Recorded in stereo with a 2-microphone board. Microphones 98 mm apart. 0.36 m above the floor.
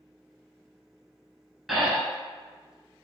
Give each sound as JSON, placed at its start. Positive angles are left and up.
{"t": 1.7, "sound": "breathing", "side_deg": -5, "distance_m": 0.7}